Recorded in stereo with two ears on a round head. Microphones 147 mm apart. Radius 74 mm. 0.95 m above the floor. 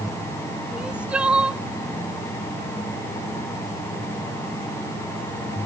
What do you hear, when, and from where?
0.7 s crying: 5° right (ahead or behind)